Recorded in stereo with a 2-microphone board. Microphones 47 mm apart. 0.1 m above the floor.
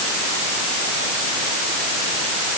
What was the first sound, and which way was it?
Only background noise.